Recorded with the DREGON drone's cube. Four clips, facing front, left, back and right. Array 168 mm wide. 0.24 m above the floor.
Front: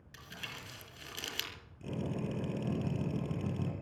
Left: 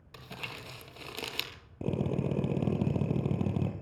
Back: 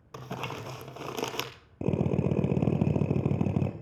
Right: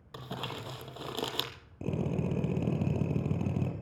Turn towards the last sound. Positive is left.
turn(degrees=165)